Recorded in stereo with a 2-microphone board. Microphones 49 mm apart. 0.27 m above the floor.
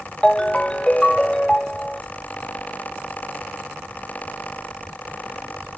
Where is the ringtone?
15° left (ahead or behind).